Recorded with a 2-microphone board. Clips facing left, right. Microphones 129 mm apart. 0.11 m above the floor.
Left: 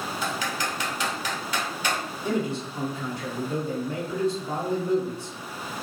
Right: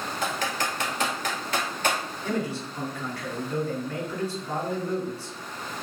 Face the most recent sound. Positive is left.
turn(degrees=25)  # may be behind; listen again after turning